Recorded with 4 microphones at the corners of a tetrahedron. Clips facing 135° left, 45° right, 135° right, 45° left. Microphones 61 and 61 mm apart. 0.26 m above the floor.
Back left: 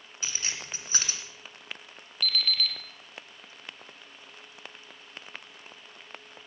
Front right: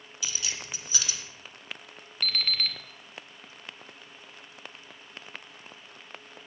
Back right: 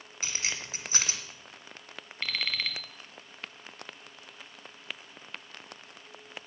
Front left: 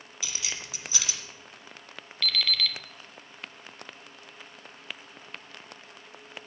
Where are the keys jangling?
Straight behind, 2 m.